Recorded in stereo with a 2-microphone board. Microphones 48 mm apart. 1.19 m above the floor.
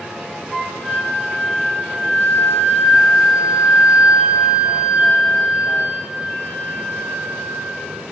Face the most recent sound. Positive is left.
turn(degrees=15)  # may be behind; listen again after turning